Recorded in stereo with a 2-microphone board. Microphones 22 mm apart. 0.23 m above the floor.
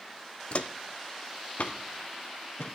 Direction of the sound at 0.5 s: 55° left (ahead or behind).